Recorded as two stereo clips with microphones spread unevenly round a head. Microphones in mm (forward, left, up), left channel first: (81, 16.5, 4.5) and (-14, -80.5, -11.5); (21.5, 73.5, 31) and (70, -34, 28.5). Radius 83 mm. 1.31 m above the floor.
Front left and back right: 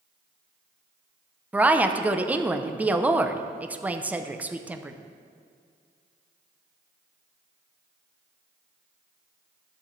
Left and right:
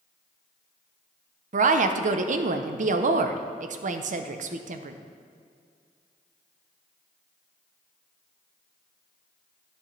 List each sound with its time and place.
1.5 s a woman speaking: 55° right, 0.7 m